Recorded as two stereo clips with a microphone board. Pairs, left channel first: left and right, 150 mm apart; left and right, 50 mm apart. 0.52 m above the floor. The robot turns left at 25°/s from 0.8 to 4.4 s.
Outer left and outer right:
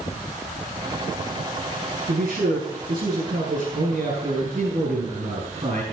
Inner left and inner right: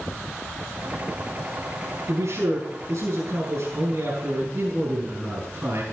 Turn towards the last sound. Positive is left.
turn(degrees=-140)